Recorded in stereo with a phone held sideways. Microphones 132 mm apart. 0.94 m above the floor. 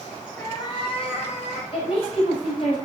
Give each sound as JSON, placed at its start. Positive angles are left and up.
{"t": 0.4, "sound": "a cat meowing", "side_deg": 25, "distance_m": 2.5}
{"t": 1.7, "sound": "a woman speaking", "side_deg": 45, "distance_m": 5.0}